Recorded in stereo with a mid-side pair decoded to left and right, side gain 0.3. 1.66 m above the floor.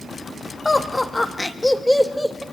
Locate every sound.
0.7 s laughter: 35° left, 3 m; by 2.4 s 10° right, 2.5 m